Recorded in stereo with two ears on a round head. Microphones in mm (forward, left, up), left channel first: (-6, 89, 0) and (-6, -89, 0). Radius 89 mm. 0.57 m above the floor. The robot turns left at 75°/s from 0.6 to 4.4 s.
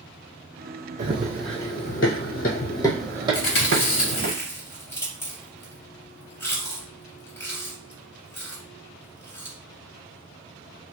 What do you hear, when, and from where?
1.0 s running footsteps: 40° right (ahead or behind), 1.1 m; by 4.3 s 45° right (ahead or behind), 1.3 m
3.3 s chewing: 80° left, 1.5 m; by 9.6 s 10° left (ahead or behind), 1.5 m